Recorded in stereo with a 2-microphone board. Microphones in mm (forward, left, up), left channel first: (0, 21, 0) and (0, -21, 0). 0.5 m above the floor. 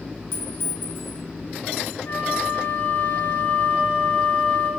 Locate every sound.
0.3 s a clink: 60° left (ahead or behind), 4 m
2.0 s a flute: 40° left (ahead or behind), 1.8 m